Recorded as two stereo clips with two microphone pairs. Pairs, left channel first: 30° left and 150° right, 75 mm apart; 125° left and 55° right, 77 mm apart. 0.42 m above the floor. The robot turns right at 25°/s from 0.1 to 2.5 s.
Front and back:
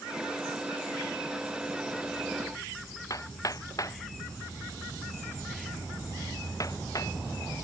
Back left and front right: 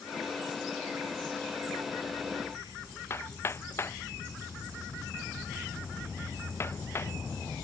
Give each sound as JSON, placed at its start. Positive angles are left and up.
{"t": 3.1, "sound": "hammering", "azimuth_deg": 70}